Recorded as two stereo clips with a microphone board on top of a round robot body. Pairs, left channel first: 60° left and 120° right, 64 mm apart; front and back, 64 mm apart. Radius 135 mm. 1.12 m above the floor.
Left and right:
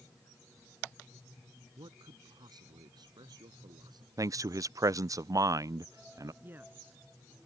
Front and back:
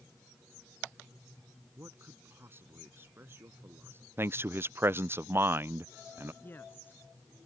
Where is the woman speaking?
60° right.